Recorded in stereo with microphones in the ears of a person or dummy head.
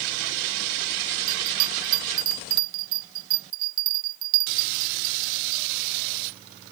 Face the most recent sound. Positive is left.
turn(degrees=-50)  # may be behind; listen again after turning